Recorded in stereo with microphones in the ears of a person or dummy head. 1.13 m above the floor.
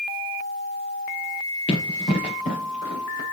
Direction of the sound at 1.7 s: 35° left (ahead or behind).